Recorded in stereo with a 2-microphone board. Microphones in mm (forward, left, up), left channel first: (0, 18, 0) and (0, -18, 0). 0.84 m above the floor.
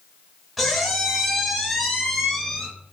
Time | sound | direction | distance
0.6 | a squeak | centre (ahead or behind) | 0.8 m